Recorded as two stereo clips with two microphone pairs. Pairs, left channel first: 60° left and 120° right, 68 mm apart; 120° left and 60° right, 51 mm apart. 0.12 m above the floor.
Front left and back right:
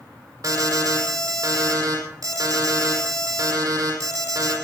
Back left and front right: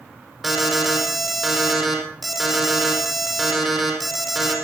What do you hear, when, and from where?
0.4 s an alarm: 145° right, 5.5 m